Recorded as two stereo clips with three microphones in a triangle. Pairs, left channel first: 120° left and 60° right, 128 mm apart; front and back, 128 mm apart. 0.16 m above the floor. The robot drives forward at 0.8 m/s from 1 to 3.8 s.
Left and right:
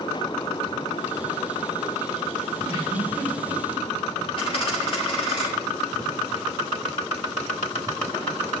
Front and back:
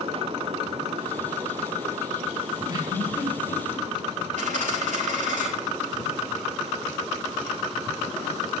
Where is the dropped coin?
165° left, 6.5 m.